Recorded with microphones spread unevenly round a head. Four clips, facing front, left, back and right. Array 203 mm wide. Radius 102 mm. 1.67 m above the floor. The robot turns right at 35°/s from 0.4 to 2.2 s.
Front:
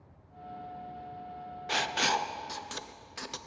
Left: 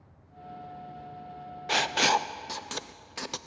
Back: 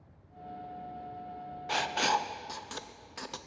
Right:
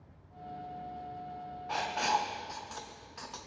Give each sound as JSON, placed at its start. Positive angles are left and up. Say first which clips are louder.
{"t": 1.7, "sound": "writing", "louder": "left 5 dB, back 1 dB", "azimuth_deg": 85, "distance_m": 0.5}